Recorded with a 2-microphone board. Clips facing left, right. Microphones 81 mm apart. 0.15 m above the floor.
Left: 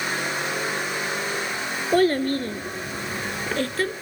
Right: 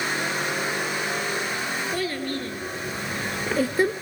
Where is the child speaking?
50° left (ahead or behind), 1.4 m; by 3.9 s 25° right (ahead or behind), 1.0 m.